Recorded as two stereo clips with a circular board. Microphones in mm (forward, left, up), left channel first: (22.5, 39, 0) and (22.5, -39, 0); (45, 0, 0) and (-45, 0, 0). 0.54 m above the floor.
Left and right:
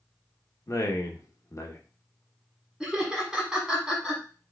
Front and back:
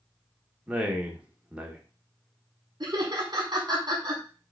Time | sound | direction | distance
0.7 | a man speaking | 110° left | 0.9 m
2.8 | laughter | 170° right | 1.1 m